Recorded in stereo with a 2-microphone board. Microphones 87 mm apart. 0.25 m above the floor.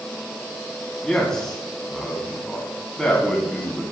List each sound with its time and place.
1.0 s a man speaking: 5° left (ahead or behind), 1.9 m